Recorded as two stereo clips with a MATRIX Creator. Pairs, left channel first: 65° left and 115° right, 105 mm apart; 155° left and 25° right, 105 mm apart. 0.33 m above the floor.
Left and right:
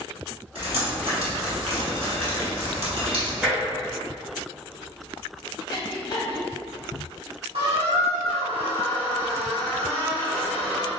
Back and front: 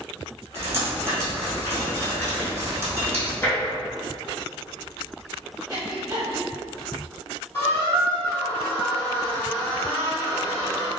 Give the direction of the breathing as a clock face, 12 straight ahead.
11 o'clock.